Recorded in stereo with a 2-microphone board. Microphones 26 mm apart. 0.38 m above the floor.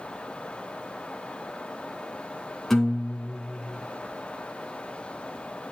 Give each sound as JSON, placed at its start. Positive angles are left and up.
{"t": 2.7, "sound": "a guitar", "side_deg": 10, "distance_m": 2.5}